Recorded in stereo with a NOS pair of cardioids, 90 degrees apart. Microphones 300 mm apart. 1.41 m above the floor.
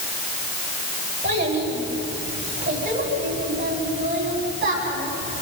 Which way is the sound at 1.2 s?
35° right.